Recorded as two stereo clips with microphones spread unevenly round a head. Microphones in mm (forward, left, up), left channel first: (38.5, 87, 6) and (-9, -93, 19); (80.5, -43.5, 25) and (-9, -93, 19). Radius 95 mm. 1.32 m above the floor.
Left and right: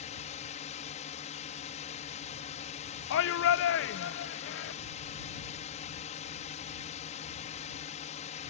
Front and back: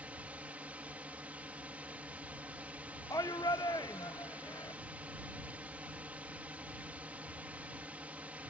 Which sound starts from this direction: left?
A shout, at 3.1 s.